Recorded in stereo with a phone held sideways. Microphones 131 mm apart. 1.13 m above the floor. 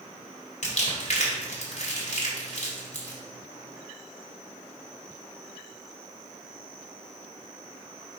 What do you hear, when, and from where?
0.6 s crumpling: 55° left (ahead or behind), 1.8 m